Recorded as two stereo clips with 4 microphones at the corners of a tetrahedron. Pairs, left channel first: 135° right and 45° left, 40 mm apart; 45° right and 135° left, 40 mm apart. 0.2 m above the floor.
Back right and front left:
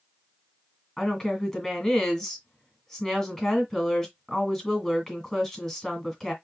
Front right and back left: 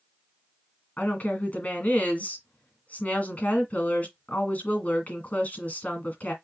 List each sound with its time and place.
1.0 s a woman speaking: 60° right, 2 m